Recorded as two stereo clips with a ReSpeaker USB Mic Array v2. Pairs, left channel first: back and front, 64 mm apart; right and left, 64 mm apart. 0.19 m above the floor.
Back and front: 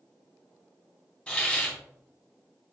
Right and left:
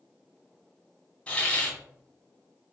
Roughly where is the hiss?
Behind right.